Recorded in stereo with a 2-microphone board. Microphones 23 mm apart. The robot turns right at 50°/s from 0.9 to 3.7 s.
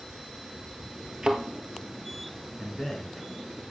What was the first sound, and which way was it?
A thud, 35° right (ahead or behind).